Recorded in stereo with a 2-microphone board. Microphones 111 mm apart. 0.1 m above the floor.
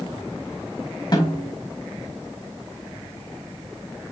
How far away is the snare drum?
About 5 m.